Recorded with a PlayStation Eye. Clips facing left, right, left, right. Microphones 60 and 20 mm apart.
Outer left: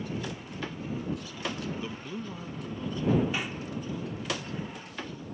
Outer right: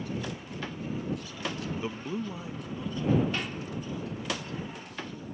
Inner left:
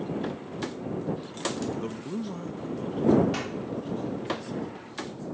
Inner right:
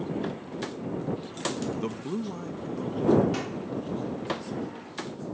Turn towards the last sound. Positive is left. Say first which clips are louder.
# even, even
turn(degrees=10)  # may be behind; listen again after turning